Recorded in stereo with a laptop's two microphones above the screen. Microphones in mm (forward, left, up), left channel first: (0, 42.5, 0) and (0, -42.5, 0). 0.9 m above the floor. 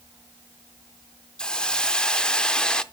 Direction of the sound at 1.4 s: 10° left (ahead or behind).